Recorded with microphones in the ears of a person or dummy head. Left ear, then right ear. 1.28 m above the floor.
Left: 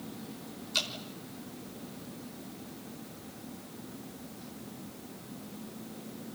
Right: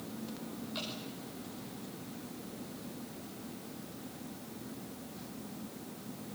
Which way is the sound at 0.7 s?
80° left.